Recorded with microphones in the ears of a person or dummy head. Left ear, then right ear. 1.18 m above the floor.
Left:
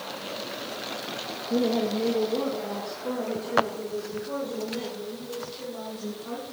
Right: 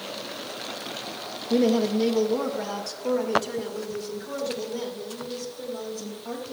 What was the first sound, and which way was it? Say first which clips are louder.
A woman speaking: right 3 dB; 55° right (ahead or behind).